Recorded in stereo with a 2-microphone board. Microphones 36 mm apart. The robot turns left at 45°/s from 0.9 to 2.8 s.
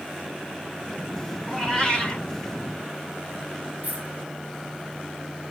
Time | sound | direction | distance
1.5 | a cat meowing | 175° left | 4.5 m
3.8 | a dropped coin | 50° right (ahead or behind) | 3 m